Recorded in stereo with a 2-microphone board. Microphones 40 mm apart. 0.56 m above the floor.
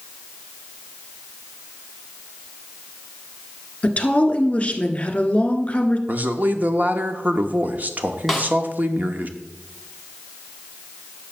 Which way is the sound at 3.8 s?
30° left (ahead or behind).